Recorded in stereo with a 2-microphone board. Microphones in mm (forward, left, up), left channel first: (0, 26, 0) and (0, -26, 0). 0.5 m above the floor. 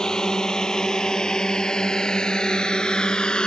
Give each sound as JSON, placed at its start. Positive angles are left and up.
{"t": 0.0, "sound": "a drone", "side_deg": 15}